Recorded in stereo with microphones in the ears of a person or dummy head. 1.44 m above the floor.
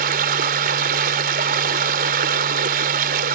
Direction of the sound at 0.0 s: 45° right (ahead or behind).